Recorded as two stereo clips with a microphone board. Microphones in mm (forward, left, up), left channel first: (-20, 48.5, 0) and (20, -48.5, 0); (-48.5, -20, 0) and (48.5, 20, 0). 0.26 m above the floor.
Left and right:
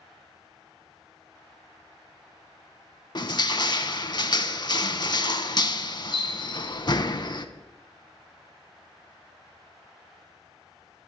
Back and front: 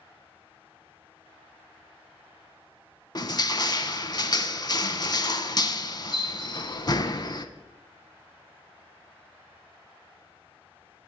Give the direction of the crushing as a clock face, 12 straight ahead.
7 o'clock.